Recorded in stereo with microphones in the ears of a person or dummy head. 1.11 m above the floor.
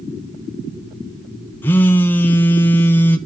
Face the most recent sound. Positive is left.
turn(degrees=10)  # may be behind; listen again after turning